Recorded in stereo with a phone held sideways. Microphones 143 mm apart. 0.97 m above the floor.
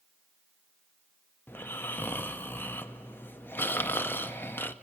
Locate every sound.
1.5 s snoring: 15° left (ahead or behind), 0.5 m